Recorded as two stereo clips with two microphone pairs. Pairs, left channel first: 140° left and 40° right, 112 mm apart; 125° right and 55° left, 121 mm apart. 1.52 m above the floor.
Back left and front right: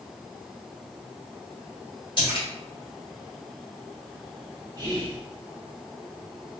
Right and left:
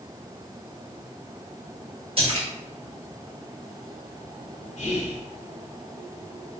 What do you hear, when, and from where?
2.2 s a splash: 95° left, 1.5 m
4.8 s whispering: 95° right, 0.9 m